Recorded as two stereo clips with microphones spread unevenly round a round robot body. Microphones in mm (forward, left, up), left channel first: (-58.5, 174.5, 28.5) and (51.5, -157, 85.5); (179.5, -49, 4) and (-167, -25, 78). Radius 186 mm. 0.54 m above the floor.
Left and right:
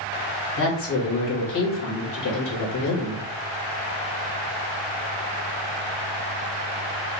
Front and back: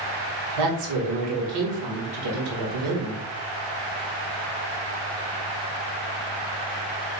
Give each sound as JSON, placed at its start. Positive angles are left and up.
{"t": 0.6, "sound": "a woman speaking", "azimuth_deg": 155, "distance_m": 1.9}